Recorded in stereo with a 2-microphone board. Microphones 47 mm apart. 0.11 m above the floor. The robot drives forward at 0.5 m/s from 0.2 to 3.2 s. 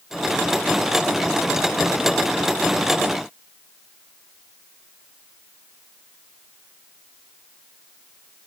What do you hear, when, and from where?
Only background noise.